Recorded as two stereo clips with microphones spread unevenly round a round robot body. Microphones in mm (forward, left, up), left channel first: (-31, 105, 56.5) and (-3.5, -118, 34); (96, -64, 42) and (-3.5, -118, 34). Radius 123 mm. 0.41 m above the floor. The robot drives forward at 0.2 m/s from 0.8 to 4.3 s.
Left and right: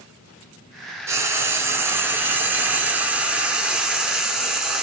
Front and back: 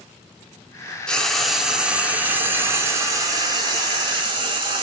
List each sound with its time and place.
1.1 s frying: 55° right, 0.6 m; by 4.8 s 165° right, 0.8 m